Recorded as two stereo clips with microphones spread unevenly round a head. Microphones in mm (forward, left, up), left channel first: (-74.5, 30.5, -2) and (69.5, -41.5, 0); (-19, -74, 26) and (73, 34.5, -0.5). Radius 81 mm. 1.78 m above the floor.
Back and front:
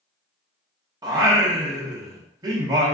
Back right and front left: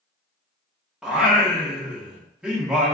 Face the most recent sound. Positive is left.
turn(degrees=-55)